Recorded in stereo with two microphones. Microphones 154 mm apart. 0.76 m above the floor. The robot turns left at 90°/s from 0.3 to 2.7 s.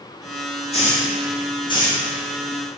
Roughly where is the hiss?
Left.